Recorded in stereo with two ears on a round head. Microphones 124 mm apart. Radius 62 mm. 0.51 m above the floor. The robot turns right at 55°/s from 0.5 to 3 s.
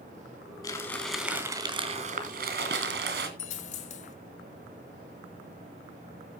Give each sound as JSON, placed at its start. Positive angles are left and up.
{"t": 0.6, "sound": "crumpling", "azimuth_deg": 150, "distance_m": 3.5}
{"t": 3.4, "sound": "a dropped coin", "side_deg": 50, "distance_m": 1.7}